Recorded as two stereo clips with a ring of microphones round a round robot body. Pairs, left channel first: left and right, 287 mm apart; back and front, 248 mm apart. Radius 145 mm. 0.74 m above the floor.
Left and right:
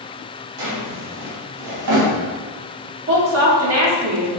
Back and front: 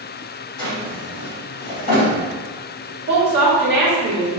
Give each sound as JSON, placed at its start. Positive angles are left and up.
{"t": 0.6, "sound": "a drawer", "azimuth_deg": -120, "distance_m": 1.3}
{"t": 3.1, "sound": "a woman speaking", "azimuth_deg": -55, "distance_m": 1.5}